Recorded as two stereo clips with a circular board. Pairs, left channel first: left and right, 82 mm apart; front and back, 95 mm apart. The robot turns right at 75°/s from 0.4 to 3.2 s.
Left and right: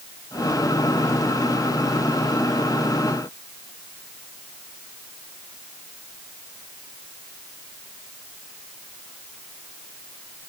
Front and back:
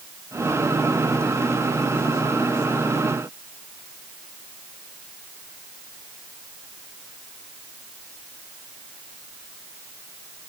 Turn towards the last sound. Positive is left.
No sound to turn to.